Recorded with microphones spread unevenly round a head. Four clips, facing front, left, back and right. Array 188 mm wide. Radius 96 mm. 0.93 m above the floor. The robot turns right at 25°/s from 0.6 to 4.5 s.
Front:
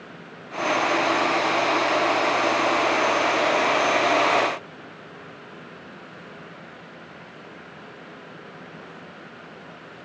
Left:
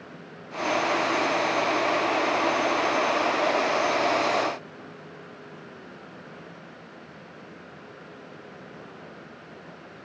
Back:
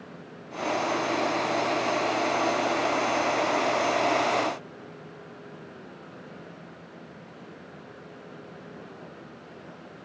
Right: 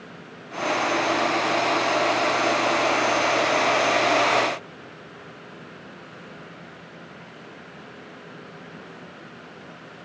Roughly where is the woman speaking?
No woman speaking in this recording.